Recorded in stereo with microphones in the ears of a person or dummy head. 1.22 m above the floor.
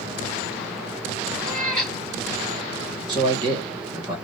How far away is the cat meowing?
About 2.5 m.